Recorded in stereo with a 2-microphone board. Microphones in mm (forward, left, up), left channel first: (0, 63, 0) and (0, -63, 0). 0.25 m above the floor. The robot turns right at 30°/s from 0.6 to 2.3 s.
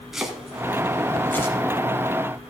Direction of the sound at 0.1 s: 5° right (ahead or behind).